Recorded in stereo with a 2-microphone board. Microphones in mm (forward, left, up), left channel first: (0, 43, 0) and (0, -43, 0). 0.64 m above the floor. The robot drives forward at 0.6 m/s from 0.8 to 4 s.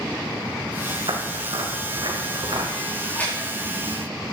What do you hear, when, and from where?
1.1 s footsteps: 70° right (ahead or behind), 1.9 m; by 2.7 s 55° right (ahead or behind), 3 m
3.0 s a splash: 20° left (ahead or behind), 6 m